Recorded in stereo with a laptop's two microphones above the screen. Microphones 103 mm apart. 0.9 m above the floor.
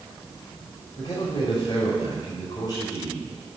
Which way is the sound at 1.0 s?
40° left (ahead or behind).